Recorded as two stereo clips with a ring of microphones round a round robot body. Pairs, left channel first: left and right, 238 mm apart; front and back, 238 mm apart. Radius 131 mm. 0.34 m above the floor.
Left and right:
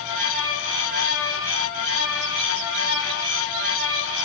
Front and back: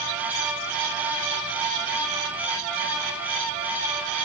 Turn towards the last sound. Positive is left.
No sound to turn to.